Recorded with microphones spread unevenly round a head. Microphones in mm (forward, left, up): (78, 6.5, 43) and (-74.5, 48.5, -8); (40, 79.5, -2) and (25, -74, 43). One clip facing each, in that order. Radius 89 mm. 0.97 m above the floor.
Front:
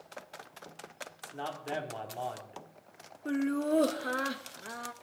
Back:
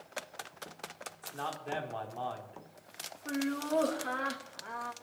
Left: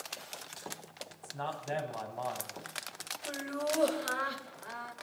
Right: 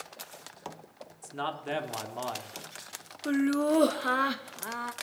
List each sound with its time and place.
1.2 s a man speaking: 90° right, 2 m
3.2 s laughter: 75° right, 1.0 m